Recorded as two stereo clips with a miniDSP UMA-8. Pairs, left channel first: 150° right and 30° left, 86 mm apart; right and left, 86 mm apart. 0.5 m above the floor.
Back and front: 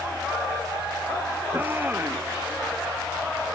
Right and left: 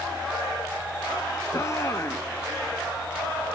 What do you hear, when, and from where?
1.5 s a shout: 35° right